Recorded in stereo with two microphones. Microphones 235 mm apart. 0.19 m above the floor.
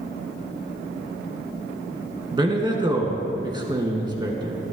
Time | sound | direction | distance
2.3 | a man speaking | 20° right (ahead or behind) | 1.8 m